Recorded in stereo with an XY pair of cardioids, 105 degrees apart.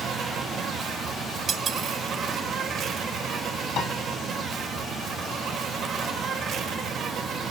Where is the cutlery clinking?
55° right, 1.2 m.